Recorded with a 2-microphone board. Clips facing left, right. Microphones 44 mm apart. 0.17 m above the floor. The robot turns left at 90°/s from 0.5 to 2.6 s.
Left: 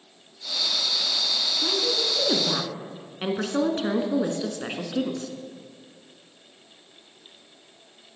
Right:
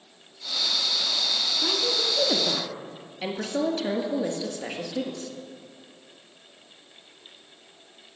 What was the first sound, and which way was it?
A woman speaking, 150° right.